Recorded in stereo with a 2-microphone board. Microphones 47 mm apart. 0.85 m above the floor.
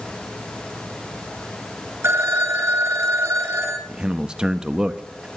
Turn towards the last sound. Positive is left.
turn(degrees=-20)  # may be behind; listen again after turning